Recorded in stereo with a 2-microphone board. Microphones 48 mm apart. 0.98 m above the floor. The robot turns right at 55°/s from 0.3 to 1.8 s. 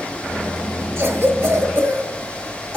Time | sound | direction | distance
1.0 | a cough | 50° right (ahead or behind) | 1.0 m